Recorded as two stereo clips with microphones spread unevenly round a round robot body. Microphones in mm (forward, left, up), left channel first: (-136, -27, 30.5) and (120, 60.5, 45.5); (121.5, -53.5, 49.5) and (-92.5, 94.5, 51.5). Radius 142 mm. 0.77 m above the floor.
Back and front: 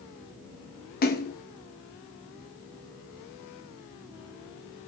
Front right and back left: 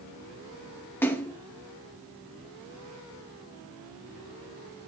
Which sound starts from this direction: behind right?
A splash, at 1.0 s.